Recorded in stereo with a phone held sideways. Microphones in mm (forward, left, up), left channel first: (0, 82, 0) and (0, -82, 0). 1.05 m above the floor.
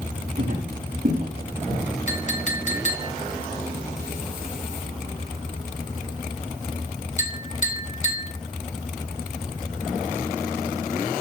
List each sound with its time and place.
0.4 s footsteps: 70° right (ahead or behind), 4 m; by 1.8 s 65° right (ahead or behind), 5 m
2.1 s a clink: 45° left (ahead or behind), 1.0 m